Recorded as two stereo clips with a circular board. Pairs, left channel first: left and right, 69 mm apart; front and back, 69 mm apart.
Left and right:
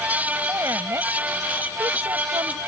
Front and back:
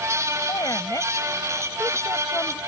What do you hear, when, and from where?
0.5 s a woman speaking: 35° right; by 2.6 s 65° right